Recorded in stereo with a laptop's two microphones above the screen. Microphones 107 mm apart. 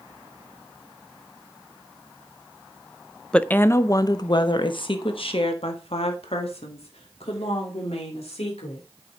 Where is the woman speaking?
10° left (ahead or behind), 0.6 m; by 8.8 s 70° left (ahead or behind), 3.5 m.